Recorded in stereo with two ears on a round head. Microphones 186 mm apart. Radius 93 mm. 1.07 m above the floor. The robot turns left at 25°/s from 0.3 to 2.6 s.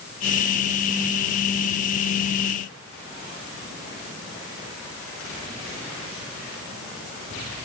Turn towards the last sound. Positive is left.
No sound to turn to.